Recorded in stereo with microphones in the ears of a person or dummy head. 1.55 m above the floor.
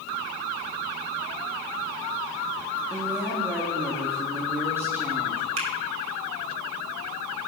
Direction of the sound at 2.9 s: 10° right (ahead or behind).